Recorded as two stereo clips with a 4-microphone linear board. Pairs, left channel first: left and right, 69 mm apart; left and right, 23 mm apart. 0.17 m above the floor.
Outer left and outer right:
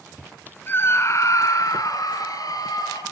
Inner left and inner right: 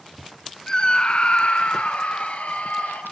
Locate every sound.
0.7 s a scream: 30° left (ahead or behind), 1.8 m; by 3.0 s 65° left (ahead or behind), 4.5 m